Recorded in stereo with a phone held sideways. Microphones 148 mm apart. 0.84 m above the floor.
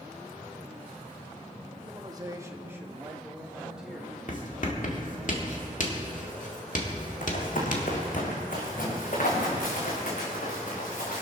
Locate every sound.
1.9 s a man speaking: 30° right (ahead or behind), 1.4 m; by 4.2 s 5° right (ahead or behind), 3.5 m
4.3 s writing: 60° left (ahead or behind), 1.9 m
7.2 s running footsteps: 65° left (ahead or behind), 3 m; by 11.2 s 60° left (ahead or behind), 6 m